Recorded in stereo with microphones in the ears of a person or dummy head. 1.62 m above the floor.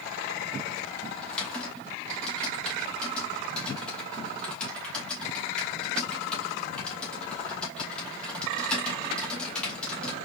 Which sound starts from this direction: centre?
Typing on a keyboard, at 1.2 s.